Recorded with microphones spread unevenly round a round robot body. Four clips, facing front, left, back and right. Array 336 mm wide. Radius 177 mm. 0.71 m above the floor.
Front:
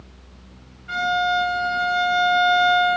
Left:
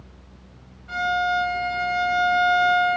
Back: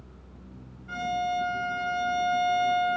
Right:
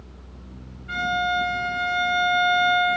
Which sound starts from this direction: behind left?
A violin, at 0.9 s.